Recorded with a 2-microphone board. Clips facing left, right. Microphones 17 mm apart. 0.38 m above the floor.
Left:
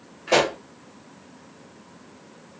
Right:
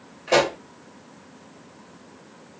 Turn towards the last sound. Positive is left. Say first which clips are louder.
# even
turn(degrees=10)  # may be behind; listen again after turning